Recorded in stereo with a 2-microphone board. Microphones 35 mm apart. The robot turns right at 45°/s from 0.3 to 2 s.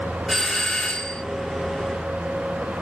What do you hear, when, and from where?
0.3 s a doorbell: 5° left, 1.7 m; by 1.2 s 50° left, 1.7 m